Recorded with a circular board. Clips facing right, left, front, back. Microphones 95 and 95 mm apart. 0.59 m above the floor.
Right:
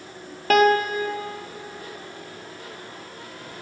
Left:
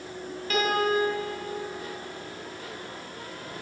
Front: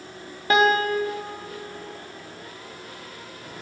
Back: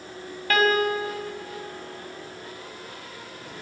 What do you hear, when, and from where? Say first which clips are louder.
0.5 s a piano: right 7 dB, front 2 dB; 70° right, 1.8 m